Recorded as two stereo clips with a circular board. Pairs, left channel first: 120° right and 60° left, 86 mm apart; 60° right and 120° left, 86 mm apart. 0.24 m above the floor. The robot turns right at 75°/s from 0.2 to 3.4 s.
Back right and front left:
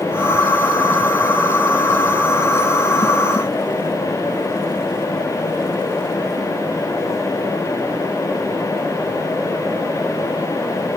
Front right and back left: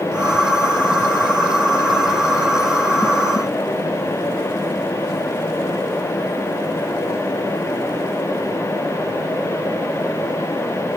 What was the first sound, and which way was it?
Only background noise.